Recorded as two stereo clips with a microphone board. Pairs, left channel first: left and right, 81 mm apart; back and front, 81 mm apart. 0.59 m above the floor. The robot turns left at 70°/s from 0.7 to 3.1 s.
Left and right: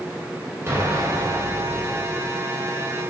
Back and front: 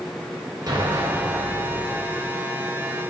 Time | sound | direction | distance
0.7 | an explosion | 30° right | 1.7 m